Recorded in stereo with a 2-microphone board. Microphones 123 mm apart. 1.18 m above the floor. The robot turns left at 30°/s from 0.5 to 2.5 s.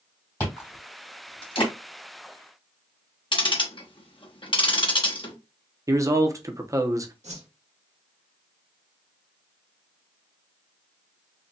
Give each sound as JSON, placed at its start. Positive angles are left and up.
{"t": 0.4, "sound": "chewing", "side_deg": 15, "distance_m": 2.0}
{"t": 3.3, "sound": "ticking", "side_deg": 45, "distance_m": 0.8}
{"t": 5.9, "sound": "a man speaking", "side_deg": -30, "distance_m": 0.6}
{"t": 7.2, "sound": "a whoosh", "side_deg": -80, "distance_m": 1.2}